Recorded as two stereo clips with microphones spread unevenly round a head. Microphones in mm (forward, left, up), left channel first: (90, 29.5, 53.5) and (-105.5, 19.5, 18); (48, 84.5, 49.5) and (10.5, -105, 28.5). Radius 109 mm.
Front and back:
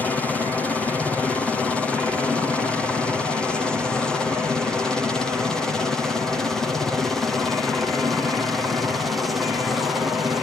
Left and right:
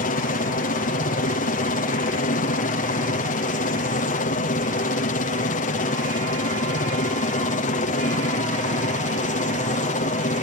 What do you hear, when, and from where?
0.0 s a helicopter: 95° left; by 10.4 s 105° left